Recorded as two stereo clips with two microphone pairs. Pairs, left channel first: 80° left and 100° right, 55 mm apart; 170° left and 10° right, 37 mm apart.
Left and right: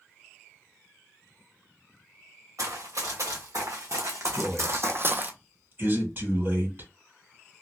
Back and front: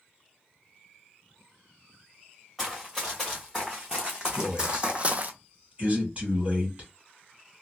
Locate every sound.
2.6 s running footsteps: 90° right, 2.5 m; by 5.3 s 45° right, 0.5 m
4.3 s a man speaking: 60° right, 2.5 m